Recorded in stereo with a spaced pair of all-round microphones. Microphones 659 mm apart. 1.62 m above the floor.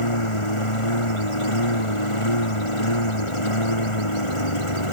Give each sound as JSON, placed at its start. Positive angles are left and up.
{"t": 0.0, "sound": "a lawn mower", "side_deg": 45}